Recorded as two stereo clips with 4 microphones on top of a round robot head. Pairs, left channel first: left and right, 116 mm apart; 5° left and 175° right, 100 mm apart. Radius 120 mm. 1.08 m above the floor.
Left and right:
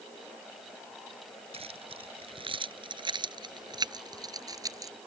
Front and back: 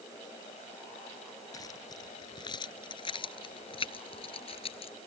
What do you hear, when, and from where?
1.5 s keys jangling: 55° right; by 4.9 s 30° right